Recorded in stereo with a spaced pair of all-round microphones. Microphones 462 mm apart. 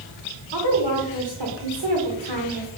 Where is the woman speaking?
65° right (ahead or behind), 1.3 m.